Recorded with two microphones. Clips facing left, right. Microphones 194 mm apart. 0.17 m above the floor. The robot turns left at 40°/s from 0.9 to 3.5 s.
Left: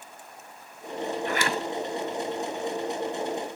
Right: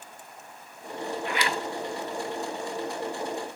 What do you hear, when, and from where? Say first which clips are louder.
1.3 s a zipper: left 1 dB; 45° left (ahead or behind), 0.6 m; by 1.6 s 60° left (ahead or behind), 0.6 m